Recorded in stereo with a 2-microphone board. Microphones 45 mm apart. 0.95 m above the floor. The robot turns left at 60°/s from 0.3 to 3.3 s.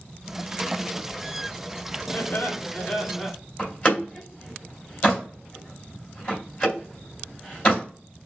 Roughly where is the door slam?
Left.